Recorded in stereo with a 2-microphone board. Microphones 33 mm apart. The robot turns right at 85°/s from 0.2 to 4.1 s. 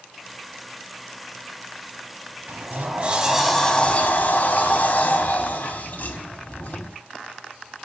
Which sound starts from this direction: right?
A sliding door, at 2.5 s.